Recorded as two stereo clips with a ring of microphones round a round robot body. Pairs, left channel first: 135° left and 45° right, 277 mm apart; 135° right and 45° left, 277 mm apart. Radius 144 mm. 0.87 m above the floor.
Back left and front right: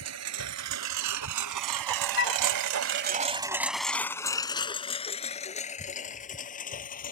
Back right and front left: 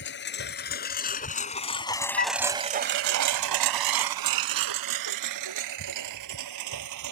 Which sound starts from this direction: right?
A lawn mower, at 0.0 s.